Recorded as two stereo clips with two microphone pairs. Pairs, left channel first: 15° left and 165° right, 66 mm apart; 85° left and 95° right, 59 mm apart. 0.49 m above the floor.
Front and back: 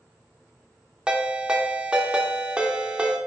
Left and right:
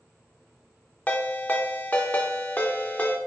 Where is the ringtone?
130° left, 0.7 m.